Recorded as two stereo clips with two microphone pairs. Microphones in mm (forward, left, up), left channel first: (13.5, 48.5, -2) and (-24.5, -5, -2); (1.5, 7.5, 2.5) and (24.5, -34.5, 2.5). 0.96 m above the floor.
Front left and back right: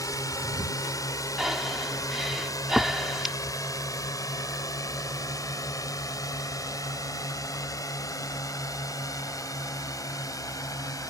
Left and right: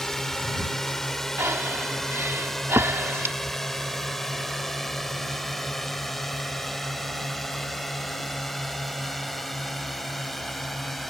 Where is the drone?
35° left; by 11.1 s 30° left.